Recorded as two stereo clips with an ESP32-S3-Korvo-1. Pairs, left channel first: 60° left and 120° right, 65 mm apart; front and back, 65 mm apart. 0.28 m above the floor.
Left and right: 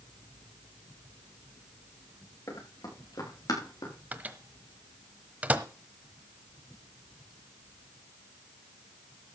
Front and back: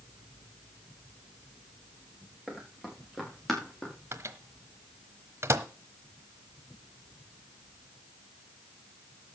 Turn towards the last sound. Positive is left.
turn(degrees=-175)